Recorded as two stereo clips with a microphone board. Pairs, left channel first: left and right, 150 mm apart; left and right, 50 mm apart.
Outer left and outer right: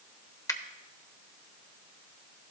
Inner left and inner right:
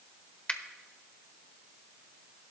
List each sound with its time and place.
0.5 s a finger snap: 25° left (ahead or behind), 0.7 m